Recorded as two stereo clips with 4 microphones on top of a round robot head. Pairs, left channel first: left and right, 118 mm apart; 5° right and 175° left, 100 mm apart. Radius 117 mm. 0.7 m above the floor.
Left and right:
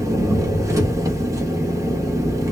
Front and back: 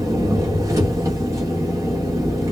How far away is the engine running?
About 1.0 m.